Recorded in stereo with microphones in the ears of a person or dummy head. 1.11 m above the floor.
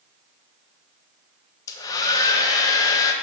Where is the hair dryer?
15° left (ahead or behind), 0.6 m.